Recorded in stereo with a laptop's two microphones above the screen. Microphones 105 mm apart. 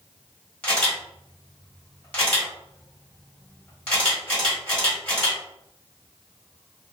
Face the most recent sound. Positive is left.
turn(degrees=15)  # may be behind; listen again after turning